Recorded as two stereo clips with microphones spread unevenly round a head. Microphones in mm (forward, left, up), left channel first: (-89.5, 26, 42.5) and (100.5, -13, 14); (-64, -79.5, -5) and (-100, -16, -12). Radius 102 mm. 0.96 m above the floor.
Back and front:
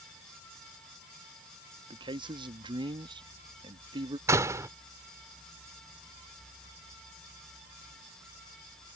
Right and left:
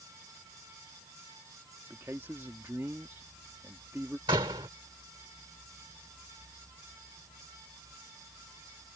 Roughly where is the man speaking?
Ahead left.